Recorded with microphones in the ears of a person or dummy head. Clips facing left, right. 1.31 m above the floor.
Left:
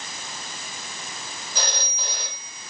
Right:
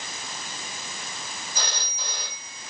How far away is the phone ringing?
About 4.5 m.